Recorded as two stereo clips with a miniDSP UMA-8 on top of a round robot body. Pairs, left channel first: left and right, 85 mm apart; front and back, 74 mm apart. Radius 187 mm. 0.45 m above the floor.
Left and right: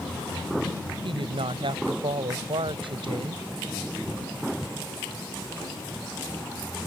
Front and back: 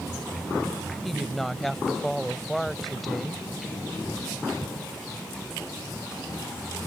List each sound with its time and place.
1.0 s a woman speaking: 90° right